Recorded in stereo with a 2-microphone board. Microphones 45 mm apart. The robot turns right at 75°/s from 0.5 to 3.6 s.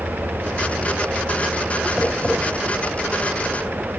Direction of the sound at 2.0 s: 10° left (ahead or behind).